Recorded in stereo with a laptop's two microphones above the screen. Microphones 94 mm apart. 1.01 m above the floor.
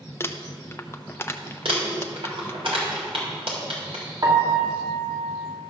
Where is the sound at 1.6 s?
85° right, 3 m.